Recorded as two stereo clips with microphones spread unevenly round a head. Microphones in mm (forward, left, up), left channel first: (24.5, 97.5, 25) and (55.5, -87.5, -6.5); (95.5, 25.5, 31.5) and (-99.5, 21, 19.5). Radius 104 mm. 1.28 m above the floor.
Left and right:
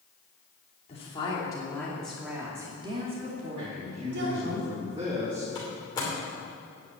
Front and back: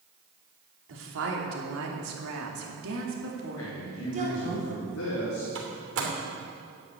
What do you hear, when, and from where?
0.9 s a woman speaking: 165° left, 3 m; by 4.6 s 115° right, 3 m
3.6 s a man speaking: 20° right, 3.5 m
5.5 s a door slam: 170° left, 3 m